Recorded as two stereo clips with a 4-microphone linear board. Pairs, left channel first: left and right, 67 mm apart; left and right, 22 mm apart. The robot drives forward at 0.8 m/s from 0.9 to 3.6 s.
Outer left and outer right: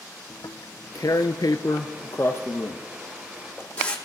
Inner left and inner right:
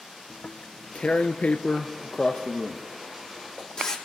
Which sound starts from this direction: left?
Tearing paper, at 0.3 s.